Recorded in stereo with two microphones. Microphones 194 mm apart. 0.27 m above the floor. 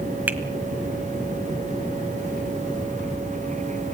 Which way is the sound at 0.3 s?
10° right (ahead or behind).